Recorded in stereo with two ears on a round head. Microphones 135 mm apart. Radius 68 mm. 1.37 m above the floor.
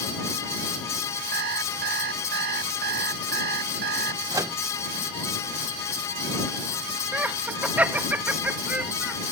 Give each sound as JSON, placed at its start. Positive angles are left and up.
{"t": 1.3, "sound": "an alarm clock", "side_deg": -70}
{"t": 4.3, "sound": "a microwave", "side_deg": -20}
{"t": 7.1, "sound": "laughter", "side_deg": -10}